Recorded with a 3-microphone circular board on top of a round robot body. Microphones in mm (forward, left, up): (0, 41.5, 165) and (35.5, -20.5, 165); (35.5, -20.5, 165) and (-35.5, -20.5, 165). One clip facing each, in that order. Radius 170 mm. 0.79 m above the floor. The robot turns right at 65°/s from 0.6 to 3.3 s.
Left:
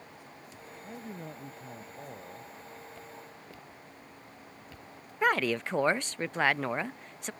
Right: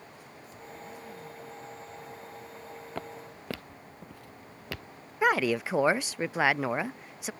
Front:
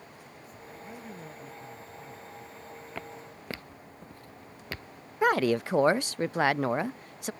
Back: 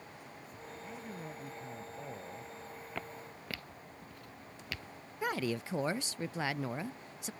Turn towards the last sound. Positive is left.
turn(degrees=20)